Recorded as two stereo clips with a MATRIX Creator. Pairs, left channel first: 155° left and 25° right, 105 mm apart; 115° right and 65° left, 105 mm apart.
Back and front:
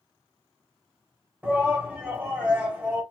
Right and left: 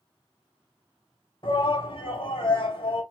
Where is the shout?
95° right, 1.9 m.